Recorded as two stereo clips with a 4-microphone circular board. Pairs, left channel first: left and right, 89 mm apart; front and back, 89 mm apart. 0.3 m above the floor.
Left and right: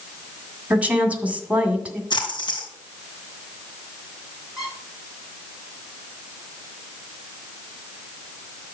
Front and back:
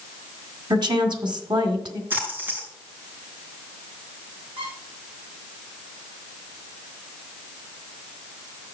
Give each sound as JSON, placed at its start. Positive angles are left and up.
{"t": 0.7, "sound": "a woman speaking", "azimuth_deg": -160, "distance_m": 2.0}
{"t": 2.1, "sound": "a splash", "azimuth_deg": 110, "distance_m": 3.0}
{"t": 4.6, "sound": "a squeak", "azimuth_deg": 180, "distance_m": 6.0}